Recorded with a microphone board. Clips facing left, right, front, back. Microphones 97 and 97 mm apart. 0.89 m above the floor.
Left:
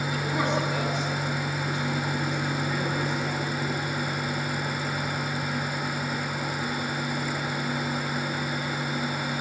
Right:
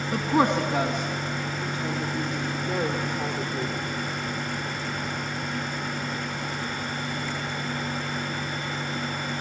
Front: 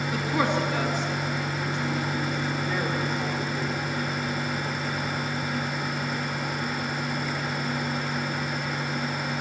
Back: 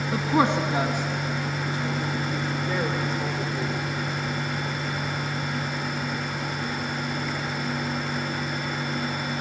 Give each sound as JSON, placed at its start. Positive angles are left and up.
{"t": 0.1, "sound": "a woman speaking", "azimuth_deg": -120, "distance_m": 1.8}